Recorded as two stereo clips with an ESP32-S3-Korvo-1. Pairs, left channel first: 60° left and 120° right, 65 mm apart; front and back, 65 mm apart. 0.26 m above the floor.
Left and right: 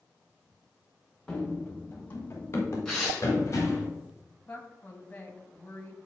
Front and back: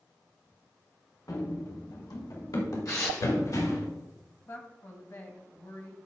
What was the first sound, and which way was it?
Running footsteps, 15° right.